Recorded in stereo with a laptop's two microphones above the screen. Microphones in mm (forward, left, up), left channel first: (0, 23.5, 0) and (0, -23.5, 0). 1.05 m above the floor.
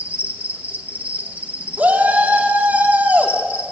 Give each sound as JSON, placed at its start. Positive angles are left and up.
{"t": 0.0, "sound": "an insect", "side_deg": -35, "distance_m": 1.4}
{"t": 1.8, "sound": "a shout", "side_deg": -40, "distance_m": 2.5}